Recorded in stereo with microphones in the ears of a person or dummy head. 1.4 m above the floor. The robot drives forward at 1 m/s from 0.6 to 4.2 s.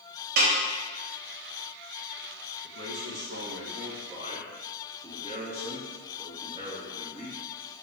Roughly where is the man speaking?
Right.